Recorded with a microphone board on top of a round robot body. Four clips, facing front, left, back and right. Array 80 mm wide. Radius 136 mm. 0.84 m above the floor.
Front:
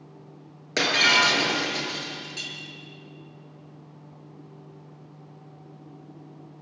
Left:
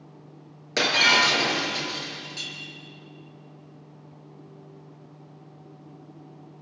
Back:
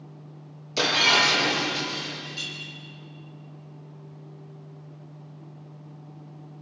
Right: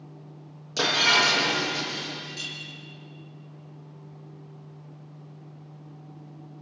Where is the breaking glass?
40° left, 6.5 m.